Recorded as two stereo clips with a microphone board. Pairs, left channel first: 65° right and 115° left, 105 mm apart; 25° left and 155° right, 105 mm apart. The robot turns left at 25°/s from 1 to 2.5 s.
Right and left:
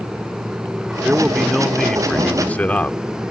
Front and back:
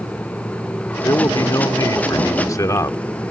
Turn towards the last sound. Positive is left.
turn(degrees=0)